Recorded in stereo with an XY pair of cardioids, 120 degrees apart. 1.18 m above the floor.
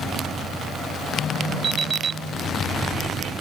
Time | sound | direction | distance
1.6 | an alarm clock | 40° right | ?